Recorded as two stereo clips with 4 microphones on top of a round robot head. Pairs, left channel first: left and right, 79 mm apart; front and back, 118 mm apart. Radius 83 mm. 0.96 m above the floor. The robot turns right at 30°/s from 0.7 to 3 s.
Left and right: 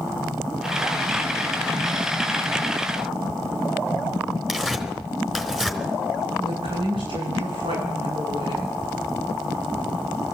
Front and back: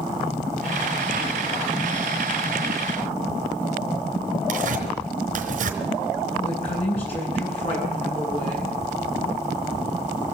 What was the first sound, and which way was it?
Tearing paper, 175° right.